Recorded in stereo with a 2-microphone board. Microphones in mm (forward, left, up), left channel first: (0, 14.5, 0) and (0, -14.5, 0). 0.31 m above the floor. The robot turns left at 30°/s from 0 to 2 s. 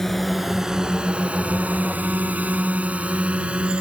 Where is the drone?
10° left (ahead or behind); by 3.8 s 40° right (ahead or behind).